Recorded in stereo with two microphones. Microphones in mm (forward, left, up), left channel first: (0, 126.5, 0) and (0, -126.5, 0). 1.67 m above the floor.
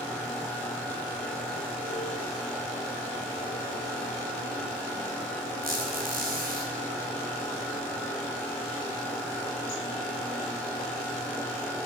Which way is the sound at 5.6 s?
35° right (ahead or behind).